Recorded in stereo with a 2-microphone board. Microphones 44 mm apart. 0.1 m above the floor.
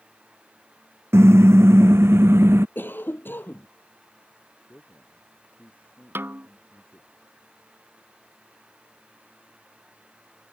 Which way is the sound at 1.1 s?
75° right (ahead or behind).